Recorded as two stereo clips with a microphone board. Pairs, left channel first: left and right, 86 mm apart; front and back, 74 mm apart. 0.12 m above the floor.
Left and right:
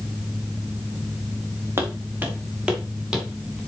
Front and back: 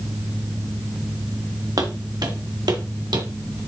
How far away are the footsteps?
About 2.0 m.